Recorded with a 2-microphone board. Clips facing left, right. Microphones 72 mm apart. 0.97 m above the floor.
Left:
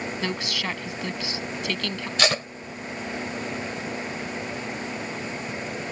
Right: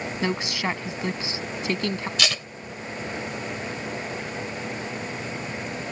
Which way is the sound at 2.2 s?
35° left (ahead or behind).